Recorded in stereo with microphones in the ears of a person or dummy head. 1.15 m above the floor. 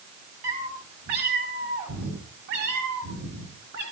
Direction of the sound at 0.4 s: 50° right (ahead or behind).